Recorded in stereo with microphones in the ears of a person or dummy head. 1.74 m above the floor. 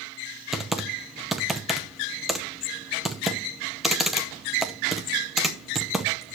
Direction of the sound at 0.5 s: 5° right (ahead or behind).